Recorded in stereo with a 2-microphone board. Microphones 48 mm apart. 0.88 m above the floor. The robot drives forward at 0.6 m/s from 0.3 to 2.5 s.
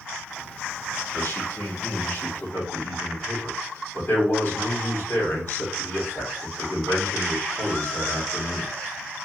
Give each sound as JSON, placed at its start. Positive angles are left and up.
{"t": 1.1, "sound": "a man speaking", "side_deg": 65, "distance_m": 2.0}